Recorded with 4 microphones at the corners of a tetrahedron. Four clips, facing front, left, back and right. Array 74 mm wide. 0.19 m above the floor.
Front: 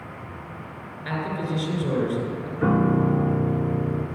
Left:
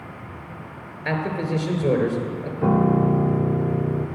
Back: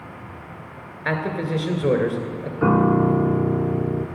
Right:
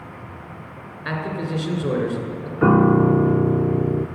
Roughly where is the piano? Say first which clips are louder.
Right 4 dB, back 4 dB; right.